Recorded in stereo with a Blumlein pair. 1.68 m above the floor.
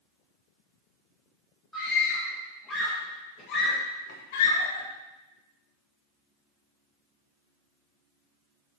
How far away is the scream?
About 3 m.